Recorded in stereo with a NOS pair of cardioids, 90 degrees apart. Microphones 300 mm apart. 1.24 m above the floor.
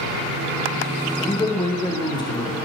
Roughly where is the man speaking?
Ahead.